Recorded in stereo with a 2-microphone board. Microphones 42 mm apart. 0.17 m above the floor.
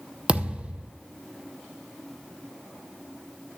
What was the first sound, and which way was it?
A thud, 30° right (ahead or behind).